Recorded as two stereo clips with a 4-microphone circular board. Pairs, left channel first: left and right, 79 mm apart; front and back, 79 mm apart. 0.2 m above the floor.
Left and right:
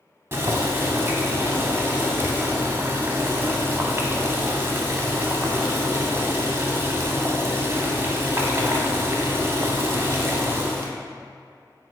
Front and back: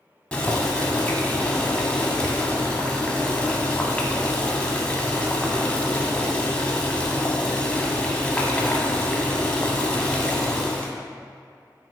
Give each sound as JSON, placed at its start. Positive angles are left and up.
{"t": 0.3, "sound": "boiling", "azimuth_deg": -65, "distance_m": 0.5}